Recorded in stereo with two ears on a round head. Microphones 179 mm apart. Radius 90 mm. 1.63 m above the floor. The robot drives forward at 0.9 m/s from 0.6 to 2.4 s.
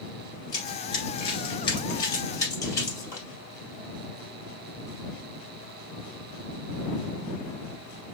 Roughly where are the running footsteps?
Centre.